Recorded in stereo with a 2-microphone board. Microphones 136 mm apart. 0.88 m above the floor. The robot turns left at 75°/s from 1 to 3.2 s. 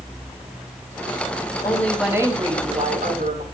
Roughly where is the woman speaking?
Ahead left.